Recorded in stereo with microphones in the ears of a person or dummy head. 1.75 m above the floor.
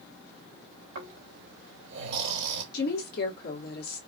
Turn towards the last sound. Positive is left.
turn(degrees=50)  # may be behind; listen again after turning